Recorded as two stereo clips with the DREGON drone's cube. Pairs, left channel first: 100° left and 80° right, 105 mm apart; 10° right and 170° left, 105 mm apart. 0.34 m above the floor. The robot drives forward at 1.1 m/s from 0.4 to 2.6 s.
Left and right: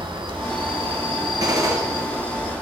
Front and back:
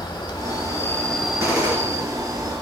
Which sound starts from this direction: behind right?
A gunshot, at 1.4 s.